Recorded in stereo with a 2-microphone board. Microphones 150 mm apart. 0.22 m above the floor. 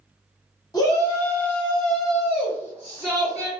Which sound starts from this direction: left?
A shout, at 0.7 s.